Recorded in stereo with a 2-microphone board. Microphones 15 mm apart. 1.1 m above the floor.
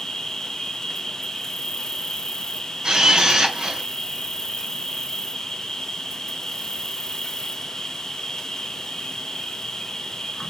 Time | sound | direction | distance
0.0 | an insect | 40° left (ahead or behind) | 1.5 m
2.8 | a camera shutter | 50° right (ahead or behind) | 4 m